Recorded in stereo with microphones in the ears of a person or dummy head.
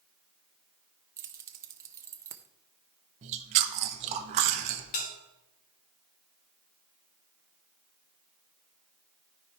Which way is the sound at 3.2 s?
40° right (ahead or behind).